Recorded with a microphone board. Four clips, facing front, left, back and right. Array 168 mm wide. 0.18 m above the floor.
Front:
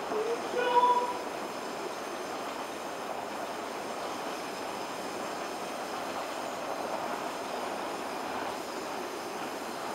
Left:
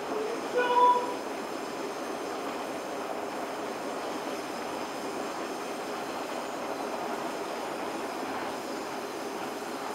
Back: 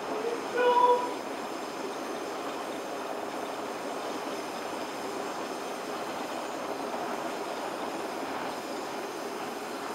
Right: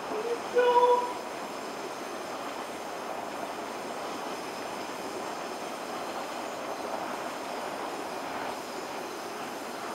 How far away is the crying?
About 1.8 m.